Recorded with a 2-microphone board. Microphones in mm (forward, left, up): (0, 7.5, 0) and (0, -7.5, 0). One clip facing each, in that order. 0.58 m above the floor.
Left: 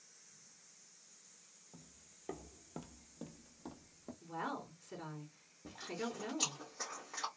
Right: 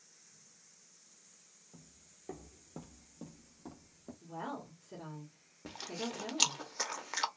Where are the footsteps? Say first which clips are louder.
Right 1 dB; 20° left (ahead or behind), 0.7 m; by 4.1 s 10° left (ahead or behind), 1.0 m.